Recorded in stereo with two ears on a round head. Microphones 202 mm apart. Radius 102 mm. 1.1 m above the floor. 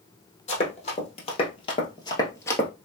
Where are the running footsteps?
30° left (ahead or behind), 1.7 m; by 2.7 s 10° left (ahead or behind), 1.1 m.